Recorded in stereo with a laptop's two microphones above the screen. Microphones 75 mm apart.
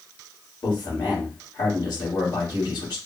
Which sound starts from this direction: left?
A man speaking, at 0.6 s.